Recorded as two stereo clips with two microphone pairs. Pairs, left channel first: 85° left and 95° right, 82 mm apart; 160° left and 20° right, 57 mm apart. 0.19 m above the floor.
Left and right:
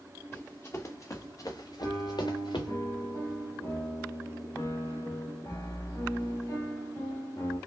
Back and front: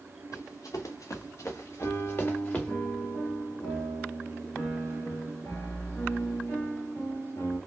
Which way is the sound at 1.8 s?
120° left.